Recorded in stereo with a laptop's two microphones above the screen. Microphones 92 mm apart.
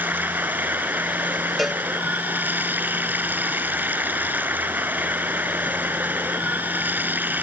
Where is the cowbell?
Centre (ahead or behind).